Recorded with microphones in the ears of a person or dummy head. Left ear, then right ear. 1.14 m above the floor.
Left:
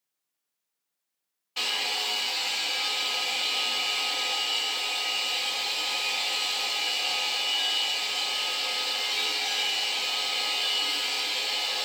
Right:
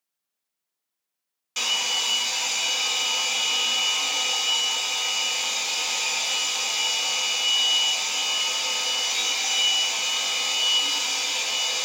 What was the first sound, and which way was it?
A hair dryer, 55° right (ahead or behind).